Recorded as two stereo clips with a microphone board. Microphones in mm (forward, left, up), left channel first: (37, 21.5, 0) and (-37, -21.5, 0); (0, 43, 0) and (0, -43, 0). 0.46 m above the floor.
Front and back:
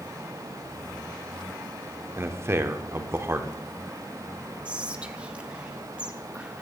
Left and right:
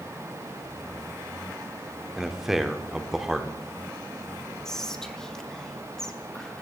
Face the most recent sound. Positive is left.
turn(degrees=160)